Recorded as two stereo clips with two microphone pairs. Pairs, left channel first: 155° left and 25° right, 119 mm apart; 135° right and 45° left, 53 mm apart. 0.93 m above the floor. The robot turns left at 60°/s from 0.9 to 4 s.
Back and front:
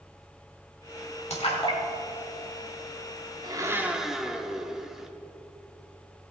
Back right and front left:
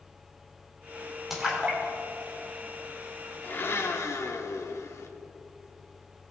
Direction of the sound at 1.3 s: 130° left.